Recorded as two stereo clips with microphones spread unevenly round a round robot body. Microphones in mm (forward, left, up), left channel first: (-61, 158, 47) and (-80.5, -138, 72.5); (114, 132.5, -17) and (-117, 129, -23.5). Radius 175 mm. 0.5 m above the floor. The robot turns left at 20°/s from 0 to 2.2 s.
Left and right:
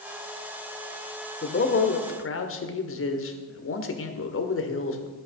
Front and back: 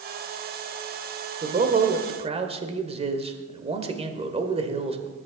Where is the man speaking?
135° left, 1.7 m; by 5.1 s 120° left, 1.7 m.